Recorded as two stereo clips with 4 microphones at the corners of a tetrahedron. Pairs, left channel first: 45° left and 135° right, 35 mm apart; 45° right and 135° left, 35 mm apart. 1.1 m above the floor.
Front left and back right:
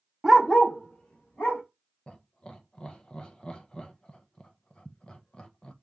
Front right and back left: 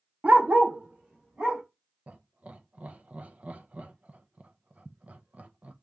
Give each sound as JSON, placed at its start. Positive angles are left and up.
{"t": 0.2, "sound": "a dog barking", "azimuth_deg": 145, "distance_m": 0.7}
{"t": 2.1, "sound": "laughter", "azimuth_deg": 105, "distance_m": 0.6}